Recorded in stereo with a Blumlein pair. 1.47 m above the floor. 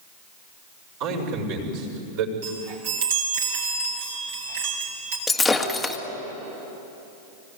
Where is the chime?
55° right, 5.5 m.